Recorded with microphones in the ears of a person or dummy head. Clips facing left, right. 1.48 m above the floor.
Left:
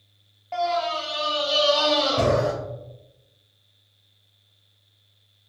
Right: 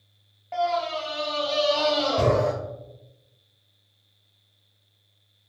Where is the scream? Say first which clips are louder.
Left 1 dB; 5° right (ahead or behind), 0.8 m; by 2.5 s 10° left (ahead or behind), 2.5 m.